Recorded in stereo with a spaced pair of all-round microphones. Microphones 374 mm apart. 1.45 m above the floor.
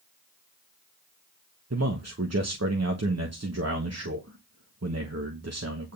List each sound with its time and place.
1.7 s a man speaking: 40° right (ahead or behind), 1.1 m